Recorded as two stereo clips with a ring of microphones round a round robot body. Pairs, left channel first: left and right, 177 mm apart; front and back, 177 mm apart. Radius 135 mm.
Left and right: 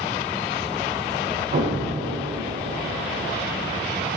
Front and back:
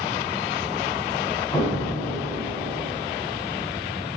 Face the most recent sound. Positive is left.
turn(degrees=-75)